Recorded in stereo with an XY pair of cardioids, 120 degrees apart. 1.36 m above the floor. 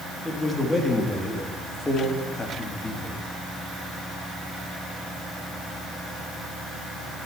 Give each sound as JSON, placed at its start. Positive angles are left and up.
{"t": 0.2, "sound": "a man speaking", "azimuth_deg": 15, "distance_m": 3.0}